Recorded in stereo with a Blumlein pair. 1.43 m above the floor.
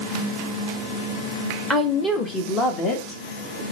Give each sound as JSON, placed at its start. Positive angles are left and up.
{"t": 1.7, "sound": "a woman speaking", "azimuth_deg": 10, "distance_m": 2.0}